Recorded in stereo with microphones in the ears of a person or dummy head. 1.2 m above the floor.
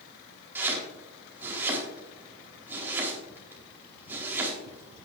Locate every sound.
0.6 s chopping: 15° right (ahead or behind), 4 m